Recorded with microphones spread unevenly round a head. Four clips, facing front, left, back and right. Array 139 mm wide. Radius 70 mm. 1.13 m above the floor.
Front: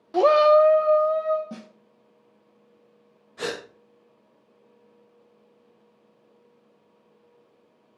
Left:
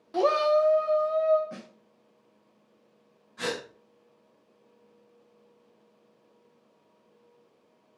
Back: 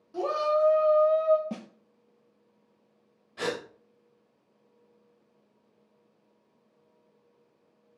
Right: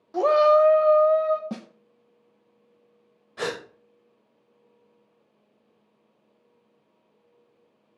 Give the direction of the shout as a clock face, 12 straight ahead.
12 o'clock.